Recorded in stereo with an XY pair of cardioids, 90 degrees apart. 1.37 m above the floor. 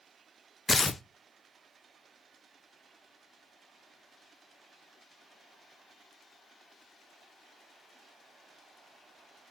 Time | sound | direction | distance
0.7 | tearing paper | 30° left | 0.5 m